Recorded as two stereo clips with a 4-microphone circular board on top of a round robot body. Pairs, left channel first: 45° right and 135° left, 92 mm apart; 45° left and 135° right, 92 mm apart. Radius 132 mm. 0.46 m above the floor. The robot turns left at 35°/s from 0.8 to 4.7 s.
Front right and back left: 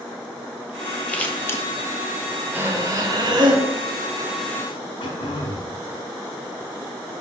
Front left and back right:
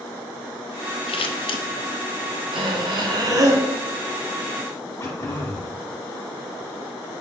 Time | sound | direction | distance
1.1 | scissors | 35° left | 0.8 m
2.5 | breathing | 155° right | 0.9 m
5.0 | throat clearing | 15° right | 1.1 m